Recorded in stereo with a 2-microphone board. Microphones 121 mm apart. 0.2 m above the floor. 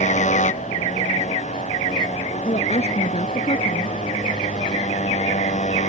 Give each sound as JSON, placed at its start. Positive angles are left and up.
{"t": 0.0, "sound": "a motorcycle", "side_deg": 80}
{"t": 2.5, "sound": "a woman speaking", "side_deg": 60}